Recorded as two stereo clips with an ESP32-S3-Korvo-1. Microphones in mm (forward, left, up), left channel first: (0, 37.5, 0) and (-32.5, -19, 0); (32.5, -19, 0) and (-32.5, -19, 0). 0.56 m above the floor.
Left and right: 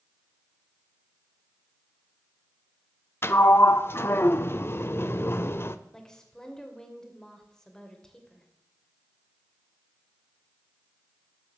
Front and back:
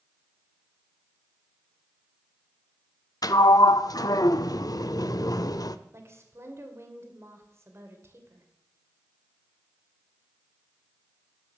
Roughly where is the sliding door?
Ahead.